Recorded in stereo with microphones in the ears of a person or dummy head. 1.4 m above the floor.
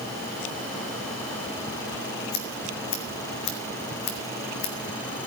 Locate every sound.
2.3 s scissors: 60° left (ahead or behind), 1.9 m